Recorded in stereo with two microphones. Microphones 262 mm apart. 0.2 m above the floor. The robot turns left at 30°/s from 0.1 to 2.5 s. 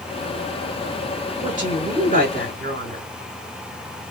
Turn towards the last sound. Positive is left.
turn(degrees=-50)